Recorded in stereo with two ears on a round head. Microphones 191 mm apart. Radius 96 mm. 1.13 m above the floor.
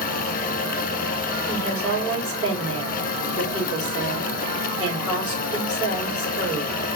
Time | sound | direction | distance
1.5 | a woman speaking | 20° left (ahead or behind) | 4 m